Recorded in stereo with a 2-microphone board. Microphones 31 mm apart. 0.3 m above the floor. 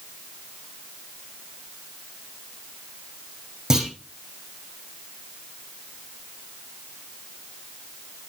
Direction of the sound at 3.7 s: 15° right (ahead or behind).